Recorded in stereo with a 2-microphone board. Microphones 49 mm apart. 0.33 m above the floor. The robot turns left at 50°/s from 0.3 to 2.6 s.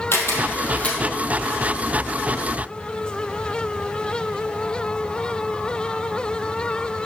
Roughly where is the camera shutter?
Left.